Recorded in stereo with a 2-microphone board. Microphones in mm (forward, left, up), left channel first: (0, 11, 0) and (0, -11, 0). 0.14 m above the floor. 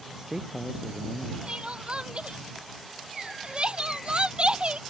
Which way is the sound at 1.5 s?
50° right (ahead or behind).